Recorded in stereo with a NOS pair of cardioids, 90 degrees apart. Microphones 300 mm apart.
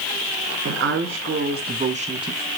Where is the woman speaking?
50° right, 2.5 m; by 2.5 s 10° right, 1.5 m.